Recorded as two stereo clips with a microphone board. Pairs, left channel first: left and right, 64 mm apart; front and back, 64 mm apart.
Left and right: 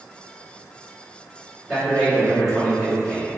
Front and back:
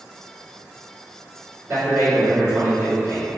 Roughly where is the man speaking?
Behind.